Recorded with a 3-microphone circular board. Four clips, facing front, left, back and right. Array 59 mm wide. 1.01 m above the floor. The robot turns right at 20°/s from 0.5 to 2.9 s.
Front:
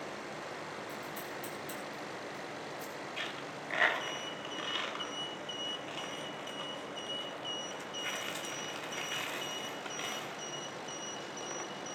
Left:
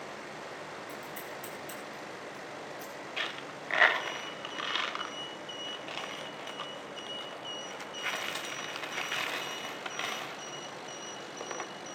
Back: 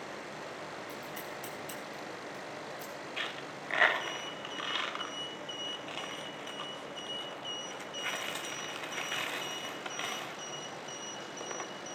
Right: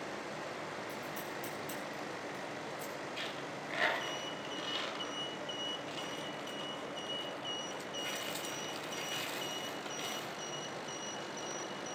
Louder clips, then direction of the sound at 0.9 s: Even, even; 145° left.